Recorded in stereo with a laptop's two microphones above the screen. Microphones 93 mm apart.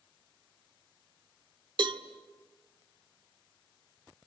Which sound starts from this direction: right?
A cowbell, at 1.8 s.